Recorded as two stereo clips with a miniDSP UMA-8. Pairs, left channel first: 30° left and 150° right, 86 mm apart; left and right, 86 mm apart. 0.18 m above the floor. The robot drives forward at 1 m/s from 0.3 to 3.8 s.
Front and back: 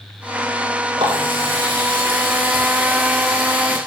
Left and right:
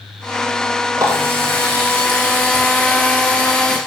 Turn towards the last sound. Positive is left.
turn(degrees=-160)